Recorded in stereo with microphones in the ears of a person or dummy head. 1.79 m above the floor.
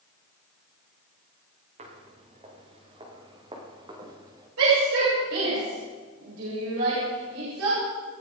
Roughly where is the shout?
Right.